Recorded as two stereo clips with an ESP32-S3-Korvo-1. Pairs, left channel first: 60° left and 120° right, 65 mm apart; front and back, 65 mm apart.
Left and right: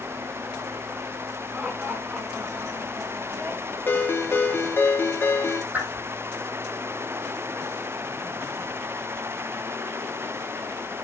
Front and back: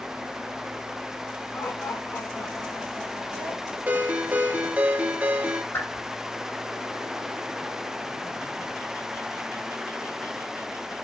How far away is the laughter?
About 2.5 m.